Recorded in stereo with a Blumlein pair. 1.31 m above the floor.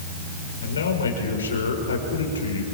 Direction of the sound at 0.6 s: 70° left.